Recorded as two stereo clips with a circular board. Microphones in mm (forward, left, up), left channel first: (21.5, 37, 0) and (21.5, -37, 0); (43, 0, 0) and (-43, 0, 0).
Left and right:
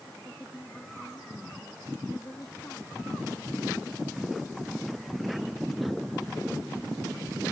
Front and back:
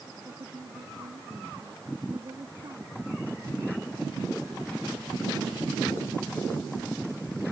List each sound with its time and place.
0.2 s a woman speaking: 150° left; by 4.4 s 140° left